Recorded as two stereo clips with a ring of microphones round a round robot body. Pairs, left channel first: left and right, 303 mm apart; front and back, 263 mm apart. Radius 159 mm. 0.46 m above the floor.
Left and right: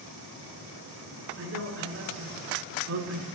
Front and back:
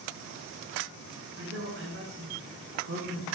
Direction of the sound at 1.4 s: 135° right.